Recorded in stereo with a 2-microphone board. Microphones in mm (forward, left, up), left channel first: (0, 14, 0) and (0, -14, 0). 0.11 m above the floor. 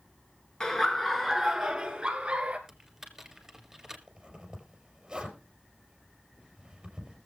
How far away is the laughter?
About 1.2 m.